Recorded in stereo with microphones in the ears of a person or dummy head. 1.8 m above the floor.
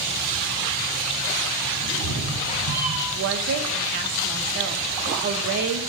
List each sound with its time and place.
1.8 s a cat meowing: 40° right (ahead or behind), 2.5 m
3.1 s a woman speaking: 45° right (ahead or behind), 0.7 m